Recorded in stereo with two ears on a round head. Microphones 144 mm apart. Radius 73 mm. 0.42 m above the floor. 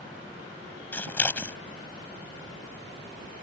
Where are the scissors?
10° left (ahead or behind).